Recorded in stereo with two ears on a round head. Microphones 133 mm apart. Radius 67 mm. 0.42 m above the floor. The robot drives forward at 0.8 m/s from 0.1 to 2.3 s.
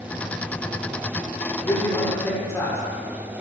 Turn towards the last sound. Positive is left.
turn(degrees=20)  # may be behind; listen again after turning